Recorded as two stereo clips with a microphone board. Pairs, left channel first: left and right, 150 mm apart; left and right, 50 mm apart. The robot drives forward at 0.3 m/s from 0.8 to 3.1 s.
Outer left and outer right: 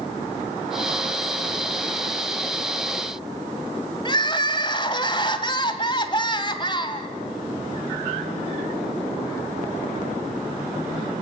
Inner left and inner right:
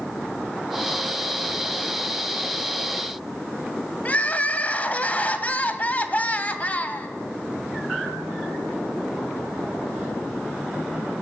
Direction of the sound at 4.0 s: 30° left (ahead or behind).